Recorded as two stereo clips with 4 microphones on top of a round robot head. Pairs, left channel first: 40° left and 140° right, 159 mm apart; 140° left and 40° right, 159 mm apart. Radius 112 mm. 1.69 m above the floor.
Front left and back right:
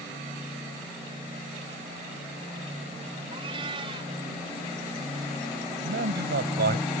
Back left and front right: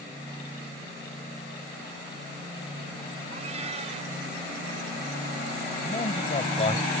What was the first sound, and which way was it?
A cat meowing, 85° right.